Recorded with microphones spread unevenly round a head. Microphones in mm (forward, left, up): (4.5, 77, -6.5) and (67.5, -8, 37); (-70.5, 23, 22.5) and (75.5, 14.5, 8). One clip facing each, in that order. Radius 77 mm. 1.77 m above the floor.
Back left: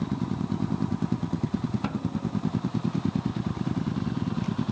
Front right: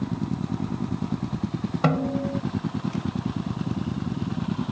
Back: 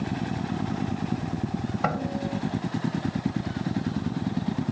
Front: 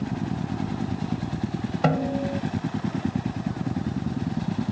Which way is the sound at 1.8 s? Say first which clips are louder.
Front right 6 dB, front 7 dB; 65° right.